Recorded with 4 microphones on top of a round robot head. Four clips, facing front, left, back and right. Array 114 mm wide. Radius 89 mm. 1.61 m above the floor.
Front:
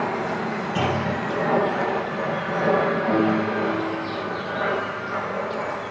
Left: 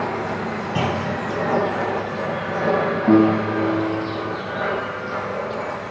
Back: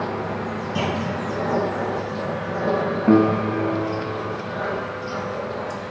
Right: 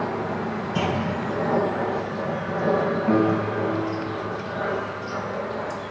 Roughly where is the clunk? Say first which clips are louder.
Left 2 dB, front 1 dB; left.